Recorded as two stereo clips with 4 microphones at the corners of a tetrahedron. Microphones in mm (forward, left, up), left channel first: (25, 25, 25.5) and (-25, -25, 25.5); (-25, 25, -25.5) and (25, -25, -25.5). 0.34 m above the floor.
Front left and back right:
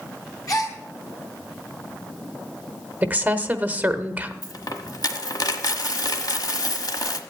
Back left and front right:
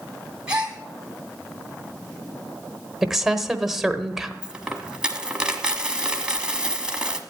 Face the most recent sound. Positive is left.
turn(degrees=30)